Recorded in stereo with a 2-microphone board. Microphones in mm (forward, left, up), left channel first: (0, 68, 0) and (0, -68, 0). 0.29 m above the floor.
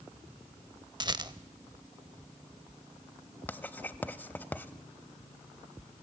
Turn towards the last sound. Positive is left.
turn(degrees=15)  # may be behind; listen again after turning